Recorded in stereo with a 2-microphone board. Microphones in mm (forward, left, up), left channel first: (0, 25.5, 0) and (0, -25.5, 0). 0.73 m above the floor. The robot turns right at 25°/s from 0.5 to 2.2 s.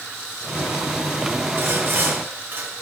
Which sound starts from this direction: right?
Sawing, at 1.6 s.